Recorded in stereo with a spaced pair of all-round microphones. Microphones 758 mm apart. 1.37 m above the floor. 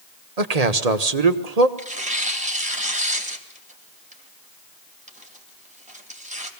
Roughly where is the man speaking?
Right.